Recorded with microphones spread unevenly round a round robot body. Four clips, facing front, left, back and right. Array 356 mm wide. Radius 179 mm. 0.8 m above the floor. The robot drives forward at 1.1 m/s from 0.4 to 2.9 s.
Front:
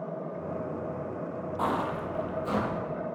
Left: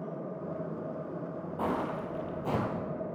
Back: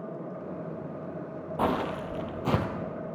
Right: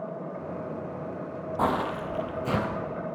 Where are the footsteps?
130° right, 1.7 m; by 2.6 s 175° right, 1.7 m.